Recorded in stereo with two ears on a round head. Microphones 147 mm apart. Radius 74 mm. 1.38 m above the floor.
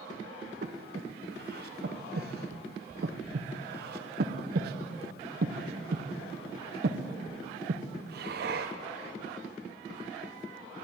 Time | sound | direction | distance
0.6 | breathing | 65° right (ahead or behind) | 1.0 m